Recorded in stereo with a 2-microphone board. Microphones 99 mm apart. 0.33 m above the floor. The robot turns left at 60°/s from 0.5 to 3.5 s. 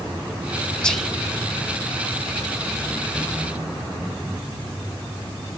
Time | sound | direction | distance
0.8 | whispering | 10° left (ahead or behind) | 1.5 m